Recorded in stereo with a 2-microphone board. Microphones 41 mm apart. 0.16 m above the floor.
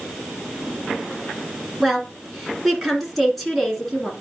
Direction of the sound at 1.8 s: Centre (ahead or behind).